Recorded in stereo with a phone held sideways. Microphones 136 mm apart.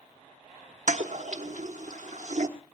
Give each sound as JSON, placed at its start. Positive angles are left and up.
{"t": 0.9, "sound": "a toilet flushing", "side_deg": -60, "distance_m": 1.3}